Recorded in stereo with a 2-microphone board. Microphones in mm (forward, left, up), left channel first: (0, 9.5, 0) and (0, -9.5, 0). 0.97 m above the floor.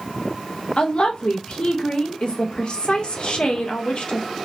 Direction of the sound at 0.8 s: 55° left (ahead or behind).